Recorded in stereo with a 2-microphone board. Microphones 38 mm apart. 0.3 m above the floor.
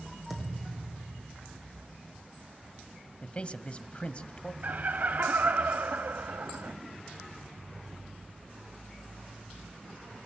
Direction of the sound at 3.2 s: 30° left (ahead or behind).